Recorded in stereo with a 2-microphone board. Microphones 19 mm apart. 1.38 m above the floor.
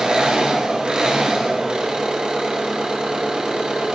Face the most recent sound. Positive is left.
turn(degrees=-60)  # may be behind; listen again after turning